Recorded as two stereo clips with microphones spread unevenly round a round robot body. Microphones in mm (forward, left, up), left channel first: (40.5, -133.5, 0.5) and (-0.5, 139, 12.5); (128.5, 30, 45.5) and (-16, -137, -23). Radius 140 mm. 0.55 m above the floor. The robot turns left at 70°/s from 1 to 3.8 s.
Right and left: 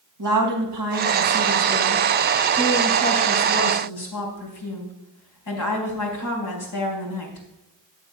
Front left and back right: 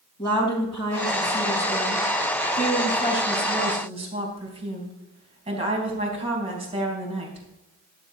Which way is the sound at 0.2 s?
125° left.